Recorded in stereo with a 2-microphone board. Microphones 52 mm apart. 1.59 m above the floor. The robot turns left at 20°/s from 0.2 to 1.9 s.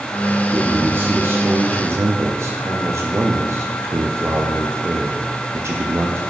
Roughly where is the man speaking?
Right.